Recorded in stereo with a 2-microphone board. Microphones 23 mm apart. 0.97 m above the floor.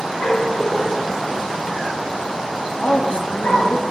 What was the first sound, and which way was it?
A dog barking, 55° left (ahead or behind).